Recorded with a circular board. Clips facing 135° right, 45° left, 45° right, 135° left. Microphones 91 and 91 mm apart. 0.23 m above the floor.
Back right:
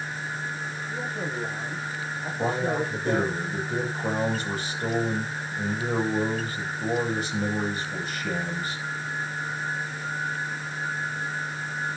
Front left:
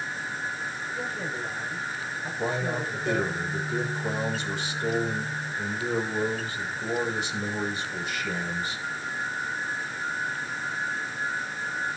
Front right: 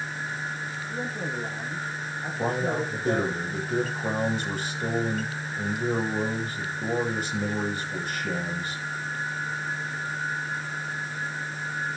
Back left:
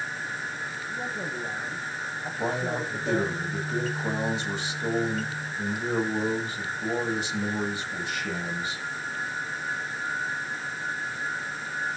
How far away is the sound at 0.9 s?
About 9.5 m.